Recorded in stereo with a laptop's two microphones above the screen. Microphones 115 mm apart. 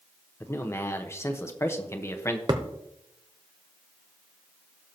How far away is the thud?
About 0.8 m.